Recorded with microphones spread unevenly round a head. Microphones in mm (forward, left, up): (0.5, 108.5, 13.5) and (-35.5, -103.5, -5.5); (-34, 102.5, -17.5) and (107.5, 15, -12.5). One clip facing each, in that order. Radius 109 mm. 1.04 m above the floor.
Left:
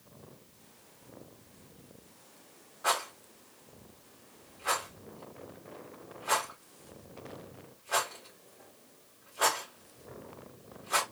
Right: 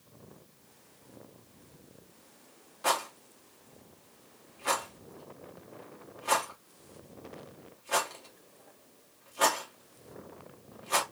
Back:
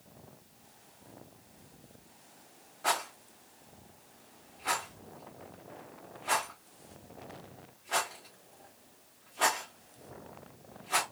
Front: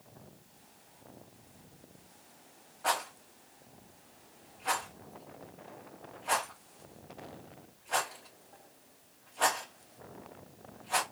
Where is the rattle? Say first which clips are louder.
Right 2 dB, even; 140° right, 1.7 m.